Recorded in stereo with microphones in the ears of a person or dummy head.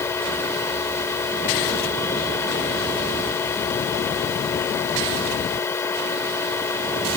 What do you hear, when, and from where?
0.0 s a machine running: 15° left (ahead or behind)